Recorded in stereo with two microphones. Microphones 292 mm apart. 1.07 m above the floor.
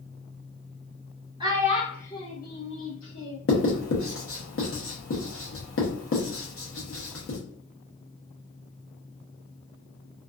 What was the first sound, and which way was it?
A child speaking, 15° right (ahead or behind).